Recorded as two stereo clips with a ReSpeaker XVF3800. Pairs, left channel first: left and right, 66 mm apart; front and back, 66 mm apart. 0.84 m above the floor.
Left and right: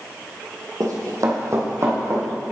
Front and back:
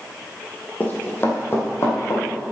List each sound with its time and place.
0.8 s running footsteps: 65° right, 2 m; by 2.2 s 40° right, 3 m